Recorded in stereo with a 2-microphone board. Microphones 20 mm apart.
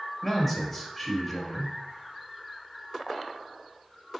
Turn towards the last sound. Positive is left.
turn(degrees=5)  # may be behind; listen again after turning